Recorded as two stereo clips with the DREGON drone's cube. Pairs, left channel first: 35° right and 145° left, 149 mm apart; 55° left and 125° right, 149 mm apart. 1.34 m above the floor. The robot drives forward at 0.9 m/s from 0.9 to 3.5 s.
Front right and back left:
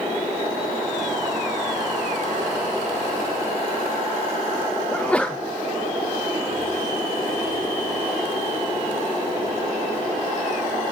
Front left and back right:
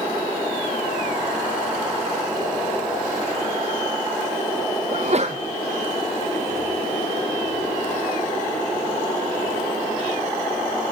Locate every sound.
4.9 s a sneeze: 115° right, 0.6 m